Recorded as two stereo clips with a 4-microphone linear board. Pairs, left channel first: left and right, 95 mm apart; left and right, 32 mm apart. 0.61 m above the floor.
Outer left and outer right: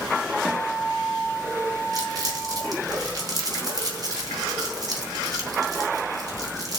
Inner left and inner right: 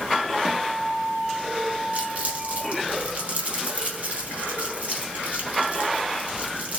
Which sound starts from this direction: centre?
A guitar, at 0.5 s.